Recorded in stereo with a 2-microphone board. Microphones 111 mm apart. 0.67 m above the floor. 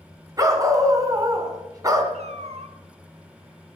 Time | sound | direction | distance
0.4 | a dog barking | 30° right (ahead or behind) | 2.5 m
2.1 | a cat meowing | 80° right | 2 m